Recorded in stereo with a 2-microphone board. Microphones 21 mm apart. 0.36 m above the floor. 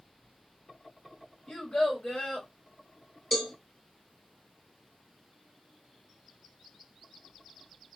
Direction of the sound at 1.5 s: 55° left (ahead or behind).